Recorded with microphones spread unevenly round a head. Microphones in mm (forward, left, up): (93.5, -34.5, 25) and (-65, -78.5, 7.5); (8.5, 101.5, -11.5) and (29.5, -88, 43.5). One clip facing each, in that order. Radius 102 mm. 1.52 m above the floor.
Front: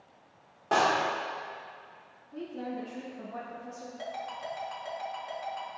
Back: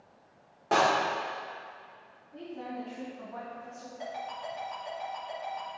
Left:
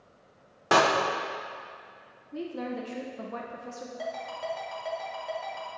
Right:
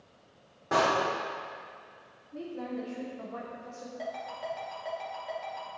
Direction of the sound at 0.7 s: 110° left.